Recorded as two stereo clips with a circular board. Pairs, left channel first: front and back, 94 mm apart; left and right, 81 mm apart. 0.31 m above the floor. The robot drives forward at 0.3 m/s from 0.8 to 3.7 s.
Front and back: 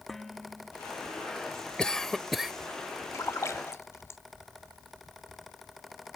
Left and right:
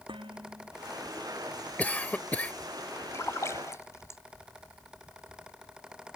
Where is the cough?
65° left; by 2.5 s 105° left.